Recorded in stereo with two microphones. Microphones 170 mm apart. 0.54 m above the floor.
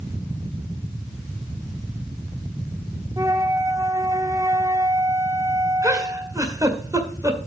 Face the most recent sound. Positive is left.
turn(degrees=-20)  # may be behind; listen again after turning